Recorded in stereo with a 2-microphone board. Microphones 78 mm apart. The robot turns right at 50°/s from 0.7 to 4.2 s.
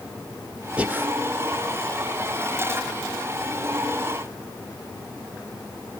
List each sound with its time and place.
0.8 s breathing: 15° right (ahead or behind), 1.0 m; by 1.1 s 25° right (ahead or behind), 1.0 m